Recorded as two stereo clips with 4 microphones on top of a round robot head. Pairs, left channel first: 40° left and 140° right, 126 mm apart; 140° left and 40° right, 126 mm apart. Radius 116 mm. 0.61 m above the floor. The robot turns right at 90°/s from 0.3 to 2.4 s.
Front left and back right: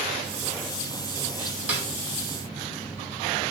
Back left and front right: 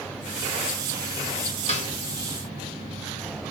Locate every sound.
1.7 s a snare drum: 145° left, 1.6 m; by 1.9 s 160° left, 1.6 m